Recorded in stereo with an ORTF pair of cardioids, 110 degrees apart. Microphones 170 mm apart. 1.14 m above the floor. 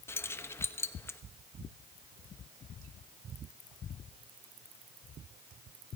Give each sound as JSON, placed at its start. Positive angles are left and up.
{"t": 0.1, "sound": "keys jangling", "azimuth_deg": 15, "distance_m": 0.9}